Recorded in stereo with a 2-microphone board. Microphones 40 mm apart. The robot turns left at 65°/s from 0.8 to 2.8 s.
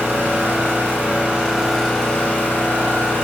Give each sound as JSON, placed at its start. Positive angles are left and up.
{"t": 0.0, "sound": "an engine running", "azimuth_deg": -120, "distance_m": 0.9}